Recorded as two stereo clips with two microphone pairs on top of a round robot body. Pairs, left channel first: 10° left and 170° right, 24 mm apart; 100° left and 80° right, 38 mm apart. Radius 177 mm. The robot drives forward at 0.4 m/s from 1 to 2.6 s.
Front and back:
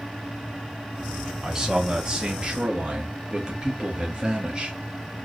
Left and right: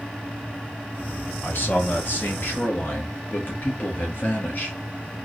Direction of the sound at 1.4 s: 130° left.